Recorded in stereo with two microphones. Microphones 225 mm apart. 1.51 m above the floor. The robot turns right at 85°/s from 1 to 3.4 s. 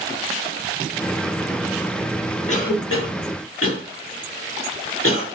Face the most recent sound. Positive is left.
turn(degrees=75)  # may be behind; listen again after turning